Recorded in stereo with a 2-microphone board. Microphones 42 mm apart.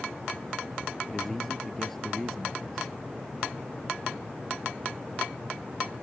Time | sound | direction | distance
1.1 | a man speaking | 5° left (ahead or behind) | ?